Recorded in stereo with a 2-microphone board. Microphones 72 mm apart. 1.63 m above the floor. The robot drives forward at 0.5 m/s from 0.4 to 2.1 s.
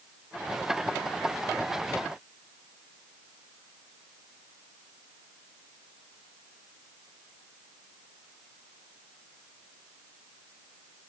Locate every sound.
Only background noise.